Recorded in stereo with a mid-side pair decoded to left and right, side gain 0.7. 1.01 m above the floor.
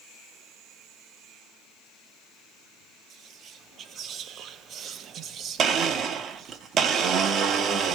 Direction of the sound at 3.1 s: 45° right.